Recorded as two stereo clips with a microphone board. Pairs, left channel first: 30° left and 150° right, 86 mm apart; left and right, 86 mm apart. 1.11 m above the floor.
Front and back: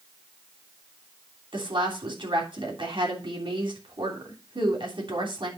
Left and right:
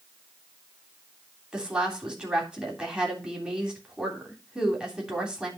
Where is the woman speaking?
170° right, 3 m.